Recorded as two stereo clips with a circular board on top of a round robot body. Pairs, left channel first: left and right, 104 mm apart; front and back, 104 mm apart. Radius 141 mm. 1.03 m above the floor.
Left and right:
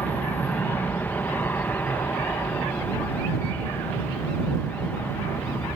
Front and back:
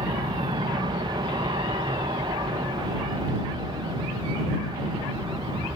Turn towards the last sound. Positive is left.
turn(degrees=155)